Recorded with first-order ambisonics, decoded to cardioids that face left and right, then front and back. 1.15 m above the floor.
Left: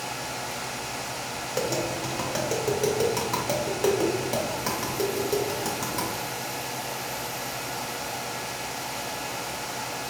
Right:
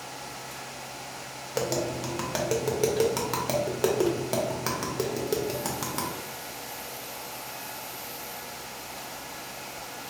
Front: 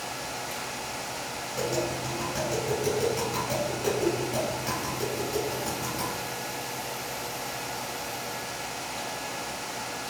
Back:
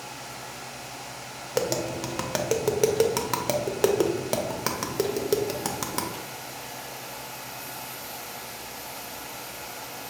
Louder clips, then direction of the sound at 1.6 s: Even, back 3 dB; 170° right.